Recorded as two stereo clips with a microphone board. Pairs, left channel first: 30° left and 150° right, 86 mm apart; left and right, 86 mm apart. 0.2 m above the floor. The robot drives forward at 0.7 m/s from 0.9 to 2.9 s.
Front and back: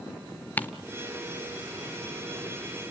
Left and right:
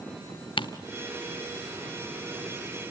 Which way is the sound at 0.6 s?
100° left.